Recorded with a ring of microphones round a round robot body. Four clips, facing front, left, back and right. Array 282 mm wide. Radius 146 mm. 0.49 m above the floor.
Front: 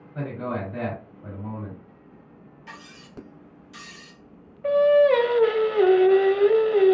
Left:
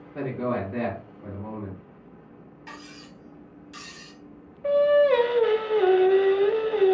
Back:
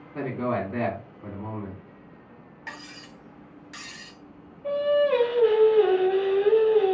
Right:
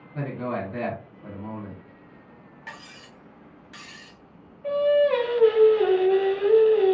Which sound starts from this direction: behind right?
Cutlery clinking, at 2.7 s.